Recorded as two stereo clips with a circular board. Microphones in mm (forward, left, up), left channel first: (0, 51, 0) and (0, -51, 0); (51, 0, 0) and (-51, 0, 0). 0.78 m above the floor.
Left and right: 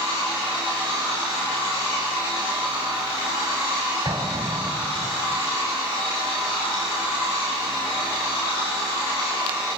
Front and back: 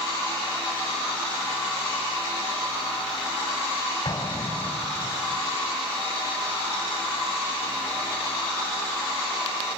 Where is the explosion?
45° right, 3 m.